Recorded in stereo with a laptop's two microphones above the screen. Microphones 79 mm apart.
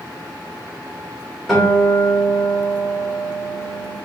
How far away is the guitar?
About 1.6 m.